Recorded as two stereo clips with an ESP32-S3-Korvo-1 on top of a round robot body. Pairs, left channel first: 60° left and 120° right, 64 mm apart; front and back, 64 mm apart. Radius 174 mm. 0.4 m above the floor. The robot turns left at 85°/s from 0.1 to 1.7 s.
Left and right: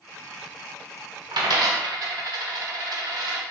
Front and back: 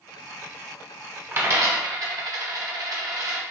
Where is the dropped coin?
115° right, 0.8 m; by 3.4 s 150° right, 0.8 m.